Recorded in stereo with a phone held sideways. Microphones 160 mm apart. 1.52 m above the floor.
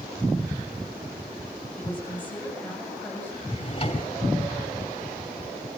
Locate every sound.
1.8 s a woman speaking: 10° left (ahead or behind), 8.5 m
3.5 s a drawer: 40° left (ahead or behind), 3.5 m